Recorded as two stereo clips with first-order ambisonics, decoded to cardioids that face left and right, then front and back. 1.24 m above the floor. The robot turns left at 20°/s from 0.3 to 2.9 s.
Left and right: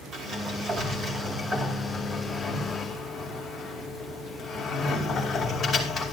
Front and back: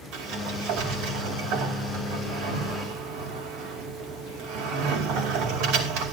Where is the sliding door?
140° right, 2.5 m; by 6.1 s 165° left, 2.5 m.